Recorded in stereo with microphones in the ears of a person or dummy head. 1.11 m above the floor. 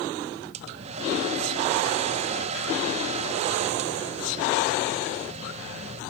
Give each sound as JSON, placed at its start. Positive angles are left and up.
{"t": 0.5, "sound": "a hair dryer", "side_deg": -35, "distance_m": 1.2}